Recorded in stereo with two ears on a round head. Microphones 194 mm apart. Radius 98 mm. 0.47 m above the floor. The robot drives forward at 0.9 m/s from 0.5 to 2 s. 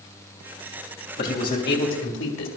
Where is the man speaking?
45° left (ahead or behind), 2.5 m; by 2.5 s 55° left (ahead or behind), 2.0 m.